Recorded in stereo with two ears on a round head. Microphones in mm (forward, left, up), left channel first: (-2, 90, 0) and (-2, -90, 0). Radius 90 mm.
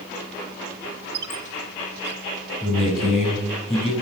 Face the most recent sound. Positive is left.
turn(degrees=0)  # may be behind; listen again after turning